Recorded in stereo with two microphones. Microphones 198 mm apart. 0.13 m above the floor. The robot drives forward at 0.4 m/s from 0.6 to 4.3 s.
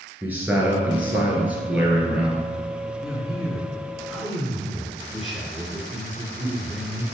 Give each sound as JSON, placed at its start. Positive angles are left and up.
{"t": 0.2, "sound": "a man speaking", "side_deg": -10, "distance_m": 1.7}
{"t": 3.0, "sound": "a man speaking", "side_deg": 0, "distance_m": 1.9}